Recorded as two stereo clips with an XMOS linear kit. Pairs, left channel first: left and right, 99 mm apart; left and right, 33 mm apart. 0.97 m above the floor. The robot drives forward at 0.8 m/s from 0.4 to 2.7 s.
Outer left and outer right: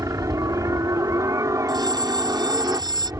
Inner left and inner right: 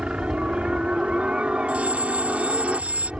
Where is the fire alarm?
45° right (ahead or behind).